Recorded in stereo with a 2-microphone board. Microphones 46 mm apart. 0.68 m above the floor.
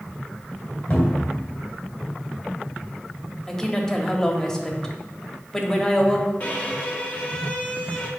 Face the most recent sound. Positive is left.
turn(degrees=40)  # may be behind; listen again after turning